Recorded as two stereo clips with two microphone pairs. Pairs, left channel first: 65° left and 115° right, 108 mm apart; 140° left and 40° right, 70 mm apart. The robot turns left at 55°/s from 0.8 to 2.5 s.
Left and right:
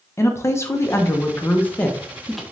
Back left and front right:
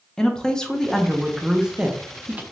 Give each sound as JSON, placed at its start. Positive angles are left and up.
{"t": 0.2, "sound": "a woman speaking", "azimuth_deg": 65, "distance_m": 0.5}